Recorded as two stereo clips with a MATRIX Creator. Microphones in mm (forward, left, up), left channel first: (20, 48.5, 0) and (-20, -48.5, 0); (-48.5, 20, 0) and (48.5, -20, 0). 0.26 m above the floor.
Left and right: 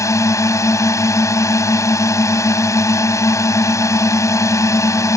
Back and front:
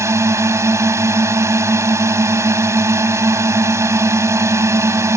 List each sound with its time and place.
0.0 s a drone: 25° left